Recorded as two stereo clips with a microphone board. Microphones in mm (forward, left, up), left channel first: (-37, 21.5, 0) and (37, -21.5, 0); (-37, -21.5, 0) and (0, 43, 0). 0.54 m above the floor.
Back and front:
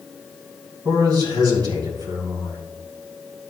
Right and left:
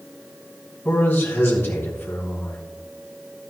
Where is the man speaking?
65° right, 3.5 m.